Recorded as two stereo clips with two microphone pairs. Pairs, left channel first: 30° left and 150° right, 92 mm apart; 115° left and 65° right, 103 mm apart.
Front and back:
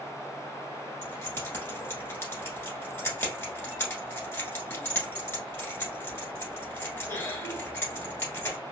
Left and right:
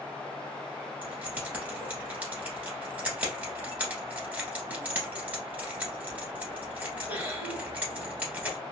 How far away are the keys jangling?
About 1.3 m.